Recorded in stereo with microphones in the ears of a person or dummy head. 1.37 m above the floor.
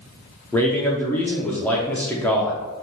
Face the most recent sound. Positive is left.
turn(degrees=5)  # may be behind; listen again after turning